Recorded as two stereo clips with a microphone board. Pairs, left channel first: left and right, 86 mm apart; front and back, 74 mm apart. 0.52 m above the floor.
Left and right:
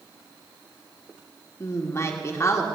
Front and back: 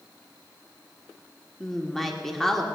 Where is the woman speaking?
80° left, 1.4 m.